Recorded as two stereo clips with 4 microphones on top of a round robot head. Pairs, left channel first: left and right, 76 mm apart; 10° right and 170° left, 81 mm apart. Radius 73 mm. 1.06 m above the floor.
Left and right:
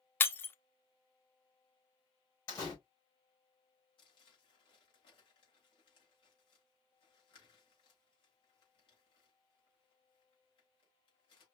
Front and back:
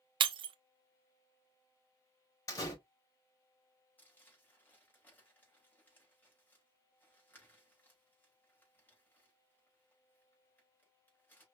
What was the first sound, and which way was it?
Breaking glass, 155° left.